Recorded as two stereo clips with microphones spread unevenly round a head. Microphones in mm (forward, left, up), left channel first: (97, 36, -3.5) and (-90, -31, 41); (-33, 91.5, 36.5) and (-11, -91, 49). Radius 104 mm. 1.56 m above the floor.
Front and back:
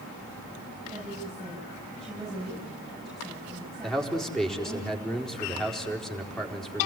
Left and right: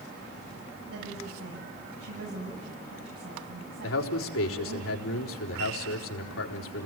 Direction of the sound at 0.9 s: 70° right.